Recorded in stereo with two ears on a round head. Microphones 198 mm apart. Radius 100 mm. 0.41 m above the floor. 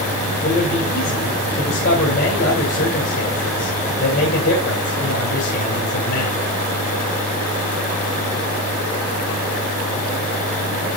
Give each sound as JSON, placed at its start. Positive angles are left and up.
{"t": 0.4, "sound": "a man speaking", "side_deg": 55, "distance_m": 2.5}